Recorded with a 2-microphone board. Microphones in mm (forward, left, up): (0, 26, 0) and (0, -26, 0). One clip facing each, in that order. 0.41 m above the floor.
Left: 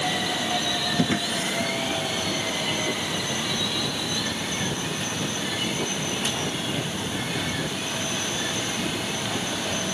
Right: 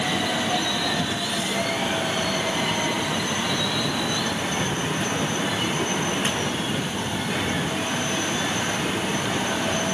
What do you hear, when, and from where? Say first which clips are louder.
1.0 s a drawer: left 1 dB; 45° left (ahead or behind)